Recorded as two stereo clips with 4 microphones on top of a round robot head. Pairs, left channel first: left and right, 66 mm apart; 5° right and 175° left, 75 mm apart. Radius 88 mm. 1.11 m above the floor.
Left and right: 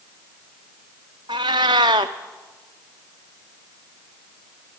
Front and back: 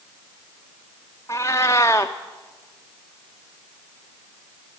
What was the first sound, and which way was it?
A cat meowing, 70° right.